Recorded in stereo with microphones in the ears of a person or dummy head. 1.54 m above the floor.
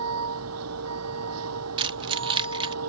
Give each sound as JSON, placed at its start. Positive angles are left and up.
{"t": 0.0, "sound": "a vehicle", "side_deg": -85}
{"t": 1.8, "sound": "keys jangling", "side_deg": -25}